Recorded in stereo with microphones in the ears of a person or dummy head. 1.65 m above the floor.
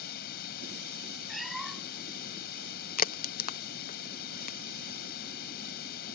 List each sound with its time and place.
0.0 s running water: 50° left (ahead or behind)
1.3 s a cat meowing: centre (ahead or behind)
3.0 s a crack: 45° left (ahead or behind)